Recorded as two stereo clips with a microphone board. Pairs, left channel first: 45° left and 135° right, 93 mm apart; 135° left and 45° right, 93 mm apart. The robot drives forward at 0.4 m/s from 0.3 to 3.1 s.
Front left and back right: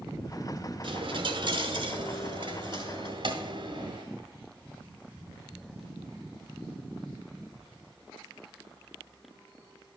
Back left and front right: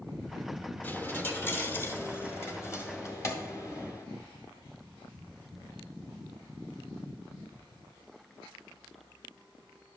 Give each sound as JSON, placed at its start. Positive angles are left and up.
{"t": 0.8, "sound": "a dropped coin", "azimuth_deg": -155, "distance_m": 1.0}